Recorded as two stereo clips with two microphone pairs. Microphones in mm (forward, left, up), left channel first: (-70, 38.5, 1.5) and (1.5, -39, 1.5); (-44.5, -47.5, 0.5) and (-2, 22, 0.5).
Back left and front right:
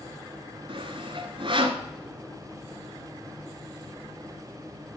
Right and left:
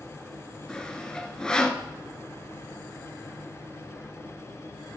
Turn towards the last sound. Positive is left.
turn(degrees=-45)